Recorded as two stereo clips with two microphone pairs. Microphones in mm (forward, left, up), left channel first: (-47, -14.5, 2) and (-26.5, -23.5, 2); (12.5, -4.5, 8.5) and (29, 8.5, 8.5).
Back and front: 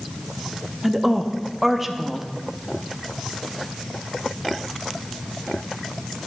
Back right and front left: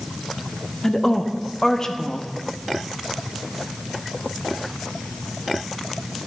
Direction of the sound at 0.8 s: 95° right.